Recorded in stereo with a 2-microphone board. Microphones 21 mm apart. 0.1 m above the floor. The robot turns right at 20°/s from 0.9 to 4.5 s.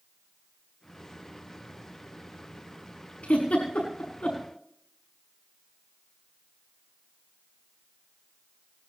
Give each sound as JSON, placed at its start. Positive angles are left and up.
{"t": 3.2, "sound": "a giggle", "side_deg": 80, "distance_m": 6.0}